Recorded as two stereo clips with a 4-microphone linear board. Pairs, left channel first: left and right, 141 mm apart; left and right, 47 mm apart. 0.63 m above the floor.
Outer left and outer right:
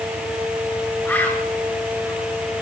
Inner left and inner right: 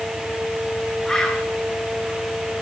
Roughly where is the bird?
Centre.